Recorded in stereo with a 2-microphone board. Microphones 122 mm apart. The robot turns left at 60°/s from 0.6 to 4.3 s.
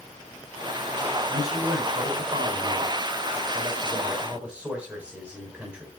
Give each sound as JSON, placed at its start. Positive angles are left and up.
{"t": 1.3, "sound": "a man speaking", "azimuth_deg": 15, "distance_m": 6.5}